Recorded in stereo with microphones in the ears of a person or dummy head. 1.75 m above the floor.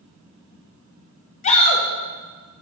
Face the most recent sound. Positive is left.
turn(degrees=40)  # may be behind; listen again after turning